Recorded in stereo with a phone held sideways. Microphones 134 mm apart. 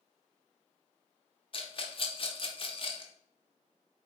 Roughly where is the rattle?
Left.